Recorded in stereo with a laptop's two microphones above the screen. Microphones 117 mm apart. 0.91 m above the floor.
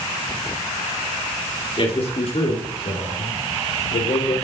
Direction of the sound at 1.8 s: 50° left (ahead or behind).